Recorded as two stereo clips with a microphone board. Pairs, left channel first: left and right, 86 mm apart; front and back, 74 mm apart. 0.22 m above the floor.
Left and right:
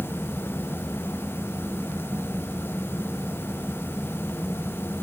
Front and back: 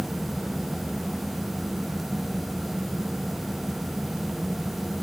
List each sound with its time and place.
Only background noise.